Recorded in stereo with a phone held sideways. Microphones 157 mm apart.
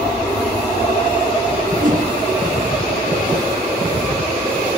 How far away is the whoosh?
About 2.0 m.